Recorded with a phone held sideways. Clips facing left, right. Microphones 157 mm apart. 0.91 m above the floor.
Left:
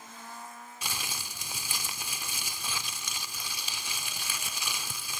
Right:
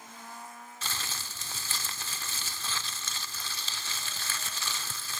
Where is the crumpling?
15° left (ahead or behind), 0.7 m.